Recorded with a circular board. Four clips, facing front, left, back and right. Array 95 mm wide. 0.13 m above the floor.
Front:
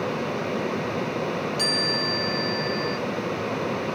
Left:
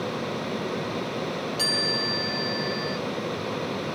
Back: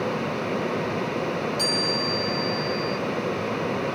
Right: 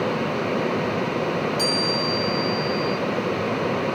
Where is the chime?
55° left, 4 m.